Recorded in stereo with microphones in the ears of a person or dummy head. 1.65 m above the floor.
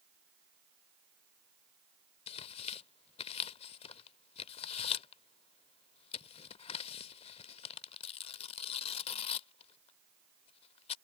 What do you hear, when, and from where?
2.3 s tearing paper: 30° left (ahead or behind)